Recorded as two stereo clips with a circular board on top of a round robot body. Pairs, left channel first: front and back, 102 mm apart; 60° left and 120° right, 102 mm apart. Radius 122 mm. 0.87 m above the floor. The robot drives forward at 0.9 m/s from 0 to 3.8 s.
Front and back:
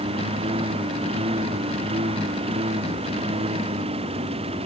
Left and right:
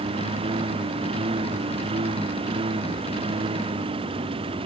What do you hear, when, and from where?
0.0 s a lawn mower: 150° right; by 4.7 s 155° right